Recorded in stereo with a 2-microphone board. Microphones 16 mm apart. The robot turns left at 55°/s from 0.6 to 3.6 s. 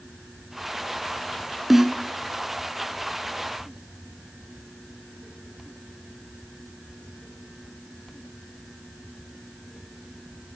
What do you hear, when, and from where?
1.7 s a snare drum: 15° right (ahead or behind), 0.8 m; by 2.0 s 30° right (ahead or behind), 0.8 m